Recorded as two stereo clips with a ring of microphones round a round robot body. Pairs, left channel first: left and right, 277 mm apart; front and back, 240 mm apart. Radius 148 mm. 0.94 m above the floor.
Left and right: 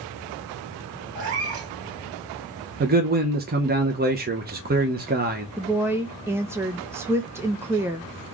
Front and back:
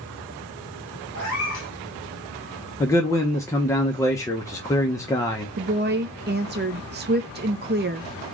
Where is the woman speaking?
165° right, 0.6 m.